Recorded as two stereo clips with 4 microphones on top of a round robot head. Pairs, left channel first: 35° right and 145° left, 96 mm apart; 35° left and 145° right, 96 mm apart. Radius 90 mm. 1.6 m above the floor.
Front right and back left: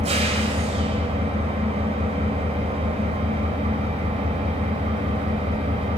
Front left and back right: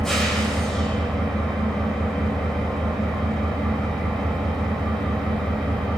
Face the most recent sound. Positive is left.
turn(degrees=120)